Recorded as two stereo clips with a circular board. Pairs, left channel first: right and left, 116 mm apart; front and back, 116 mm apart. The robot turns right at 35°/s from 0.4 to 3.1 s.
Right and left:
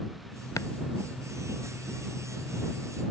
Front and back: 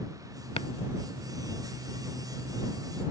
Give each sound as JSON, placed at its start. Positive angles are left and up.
{"t": 0.6, "sound": "chopping", "azimuth_deg": -30}